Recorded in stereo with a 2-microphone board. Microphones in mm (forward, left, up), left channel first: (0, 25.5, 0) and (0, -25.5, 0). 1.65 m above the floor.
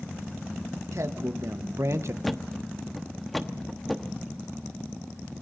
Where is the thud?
Centre (ahead or behind), 1.1 m.